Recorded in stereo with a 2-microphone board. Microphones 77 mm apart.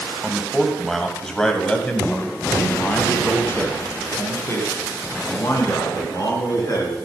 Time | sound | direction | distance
0.2 | a man speaking | 5° right (ahead or behind) | 2.5 m